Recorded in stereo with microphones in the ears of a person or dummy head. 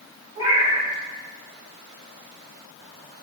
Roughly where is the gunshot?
No gunshot in this recording.